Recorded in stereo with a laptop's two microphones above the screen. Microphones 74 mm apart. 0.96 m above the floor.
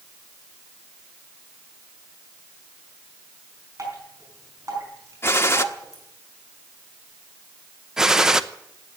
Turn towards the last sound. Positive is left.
turn(degrees=-5)  # may be behind; listen again after turning